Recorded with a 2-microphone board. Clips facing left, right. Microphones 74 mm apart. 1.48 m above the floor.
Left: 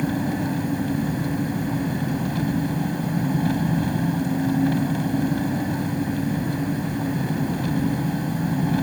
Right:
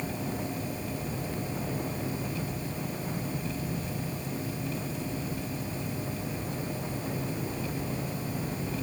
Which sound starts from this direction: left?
An engine running, at 0.0 s.